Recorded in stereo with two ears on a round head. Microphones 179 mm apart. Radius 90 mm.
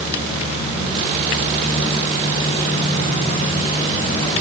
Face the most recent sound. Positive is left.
No sound to turn to.